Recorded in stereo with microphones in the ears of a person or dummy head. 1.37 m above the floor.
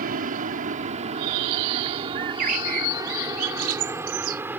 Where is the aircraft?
45° right (ahead or behind); by 4.6 s 10° right (ahead or behind).